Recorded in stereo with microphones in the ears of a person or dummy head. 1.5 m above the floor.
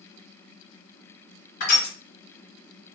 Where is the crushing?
55° left (ahead or behind), 2.5 m.